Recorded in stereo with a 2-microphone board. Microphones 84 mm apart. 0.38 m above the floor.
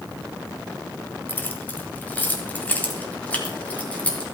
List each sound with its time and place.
1.3 s keys jangling: 25° left (ahead or behind), 1.4 m; by 4.2 s 15° left (ahead or behind), 3 m